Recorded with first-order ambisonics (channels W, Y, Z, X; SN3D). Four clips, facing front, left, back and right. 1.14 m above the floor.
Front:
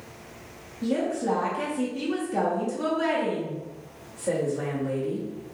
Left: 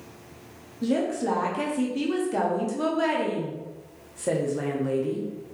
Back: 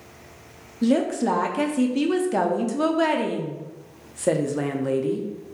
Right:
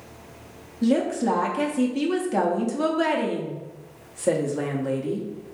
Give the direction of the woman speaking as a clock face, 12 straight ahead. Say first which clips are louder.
Right 3 dB, back 5 dB; 5 o'clock.